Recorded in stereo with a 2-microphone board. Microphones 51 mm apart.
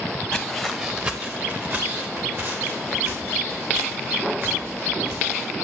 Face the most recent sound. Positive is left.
turn(degrees=-60)  # may be behind; listen again after turning